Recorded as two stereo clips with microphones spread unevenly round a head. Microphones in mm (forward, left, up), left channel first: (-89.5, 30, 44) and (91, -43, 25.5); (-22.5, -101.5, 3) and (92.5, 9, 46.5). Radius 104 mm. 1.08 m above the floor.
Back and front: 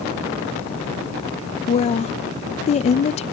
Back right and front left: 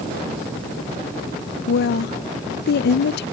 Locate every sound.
1.7 s a woman speaking: 140° right